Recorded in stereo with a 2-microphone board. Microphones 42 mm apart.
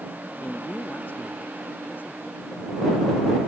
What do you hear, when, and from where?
0.4 s a man speaking: 50° left (ahead or behind); by 3.5 s 55° left (ahead or behind)